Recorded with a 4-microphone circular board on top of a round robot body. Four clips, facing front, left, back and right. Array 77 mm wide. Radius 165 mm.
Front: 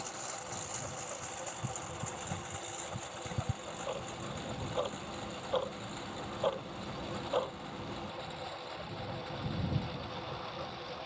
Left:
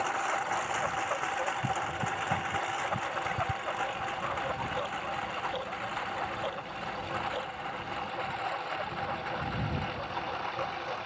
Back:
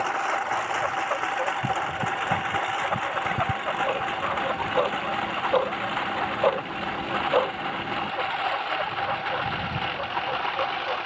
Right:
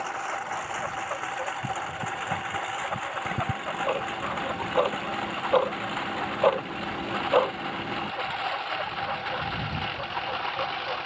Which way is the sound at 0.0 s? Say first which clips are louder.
Left 1 dB, back 18 dB; straight behind.